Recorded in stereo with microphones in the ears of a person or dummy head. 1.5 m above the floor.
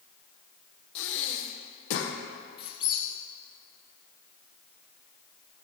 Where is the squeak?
25° left (ahead or behind), 0.8 m.